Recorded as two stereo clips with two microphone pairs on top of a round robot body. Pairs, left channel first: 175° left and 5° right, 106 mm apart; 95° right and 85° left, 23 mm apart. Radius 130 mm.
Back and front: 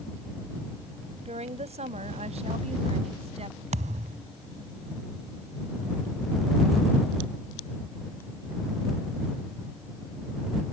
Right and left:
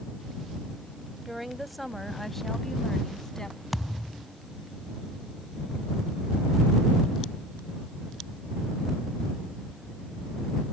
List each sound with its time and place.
1.2 s a woman speaking: straight ahead; by 3.6 s 30° right
3.7 s a thud: straight ahead